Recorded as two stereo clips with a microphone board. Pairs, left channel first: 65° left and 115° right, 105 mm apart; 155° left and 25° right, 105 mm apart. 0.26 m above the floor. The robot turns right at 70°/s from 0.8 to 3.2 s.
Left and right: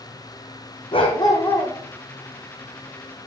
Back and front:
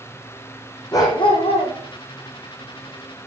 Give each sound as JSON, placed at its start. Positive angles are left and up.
{"t": 0.9, "sound": "a dog barking", "azimuth_deg": 95, "distance_m": 3.0}